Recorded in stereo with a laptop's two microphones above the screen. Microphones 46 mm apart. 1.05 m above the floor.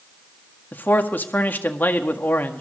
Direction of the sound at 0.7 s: 40° left (ahead or behind).